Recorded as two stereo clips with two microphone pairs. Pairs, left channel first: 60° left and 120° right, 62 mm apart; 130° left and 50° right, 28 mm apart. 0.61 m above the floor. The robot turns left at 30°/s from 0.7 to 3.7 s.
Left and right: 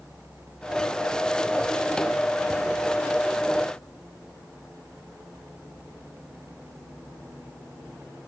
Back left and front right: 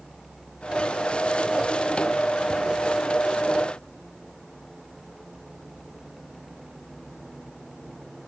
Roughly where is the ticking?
I don't hear ticking.